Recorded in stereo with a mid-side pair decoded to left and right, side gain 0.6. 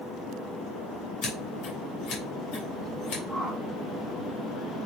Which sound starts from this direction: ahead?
A whoosh, at 3.3 s.